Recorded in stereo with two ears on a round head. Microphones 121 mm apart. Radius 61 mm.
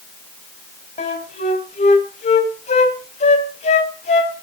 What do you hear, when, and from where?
1.0 s a flute: 50° left (ahead or behind), 2.5 m